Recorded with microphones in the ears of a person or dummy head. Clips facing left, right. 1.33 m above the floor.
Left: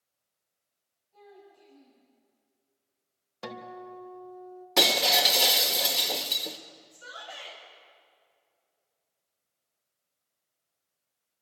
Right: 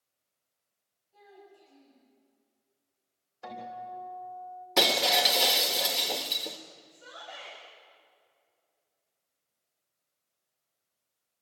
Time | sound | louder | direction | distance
1.1 | a child speaking | left 2 dB | 10° right (ahead or behind) | 8.5 m
3.4 | a guitar | even | 80° left | 3.5 m
4.8 | breaking glass | even | centre (ahead or behind) | 1.3 m
6.9 | a shout | left 2 dB | 15° left (ahead or behind) | 4.5 m